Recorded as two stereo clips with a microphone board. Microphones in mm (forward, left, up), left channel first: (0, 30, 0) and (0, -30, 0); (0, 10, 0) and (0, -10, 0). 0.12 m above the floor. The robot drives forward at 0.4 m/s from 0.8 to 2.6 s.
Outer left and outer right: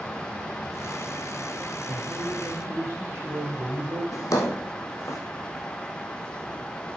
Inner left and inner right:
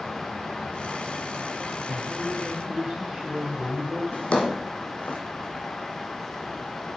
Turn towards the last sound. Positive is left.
turn(degrees=65)  # may be behind; listen again after turning